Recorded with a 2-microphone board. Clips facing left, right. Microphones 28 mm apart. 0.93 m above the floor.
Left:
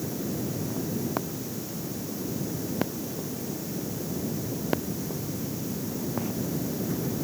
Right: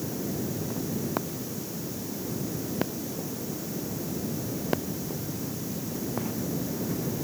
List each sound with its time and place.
Only background noise.